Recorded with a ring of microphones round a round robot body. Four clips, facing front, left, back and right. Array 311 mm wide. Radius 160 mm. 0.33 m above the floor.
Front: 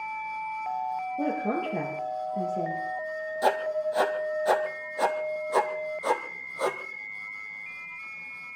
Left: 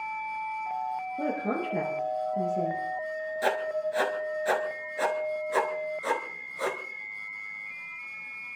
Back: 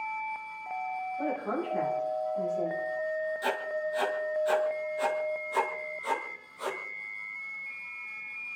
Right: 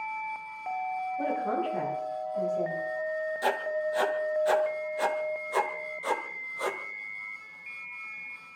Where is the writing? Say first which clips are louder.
Left 2 dB, front 6 dB; 20° left, 1.8 m.